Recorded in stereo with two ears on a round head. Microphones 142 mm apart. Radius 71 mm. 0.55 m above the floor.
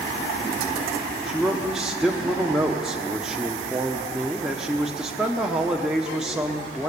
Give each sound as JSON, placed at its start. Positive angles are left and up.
{"t": 1.3, "sound": "a man speaking", "side_deg": -5, "distance_m": 1.2}